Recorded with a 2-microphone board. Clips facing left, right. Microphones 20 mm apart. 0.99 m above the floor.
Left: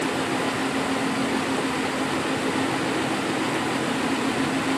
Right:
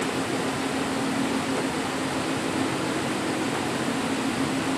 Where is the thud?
I don't hear a thud.